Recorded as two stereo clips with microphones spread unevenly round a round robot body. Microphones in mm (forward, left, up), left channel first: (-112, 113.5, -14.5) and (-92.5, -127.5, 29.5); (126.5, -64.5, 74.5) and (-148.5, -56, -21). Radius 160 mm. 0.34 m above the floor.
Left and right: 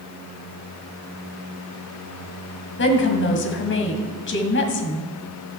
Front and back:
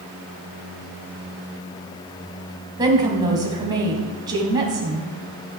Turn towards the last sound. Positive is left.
turn(degrees=115)